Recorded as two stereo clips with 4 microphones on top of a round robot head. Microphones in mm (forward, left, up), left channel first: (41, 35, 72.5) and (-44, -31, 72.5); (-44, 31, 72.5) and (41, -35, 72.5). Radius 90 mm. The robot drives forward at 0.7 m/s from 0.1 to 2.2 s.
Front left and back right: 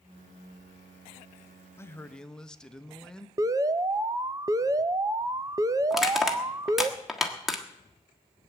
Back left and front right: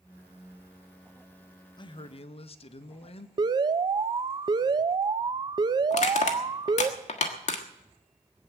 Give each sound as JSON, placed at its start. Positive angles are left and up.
{"t": 1.8, "sound": "a man speaking", "azimuth_deg": 100, "distance_m": 0.8}
{"t": 3.4, "sound": "an alarm", "azimuth_deg": -85, "distance_m": 0.7}
{"t": 5.9, "sound": "crushing", "azimuth_deg": 130, "distance_m": 1.5}